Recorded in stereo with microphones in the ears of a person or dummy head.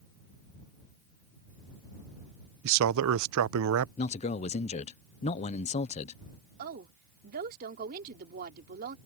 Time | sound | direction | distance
2.6 | a man speaking | 70° right (ahead or behind) | ?
4.0 | a man speaking | 30° left (ahead or behind) | ?
6.6 | a woman speaking | 45° right (ahead or behind) | ?